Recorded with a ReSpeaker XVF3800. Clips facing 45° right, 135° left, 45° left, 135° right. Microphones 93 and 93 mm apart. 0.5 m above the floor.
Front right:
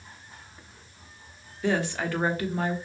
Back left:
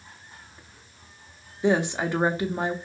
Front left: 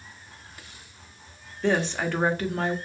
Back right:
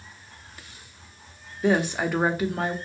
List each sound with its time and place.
1.6 s a woman speaking: 165° left, 0.9 m